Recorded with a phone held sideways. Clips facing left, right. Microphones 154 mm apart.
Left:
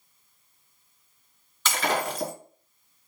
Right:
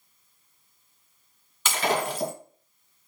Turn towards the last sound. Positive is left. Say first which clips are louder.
# right 1 dB
turn(degrees=-10)  # may be behind; listen again after turning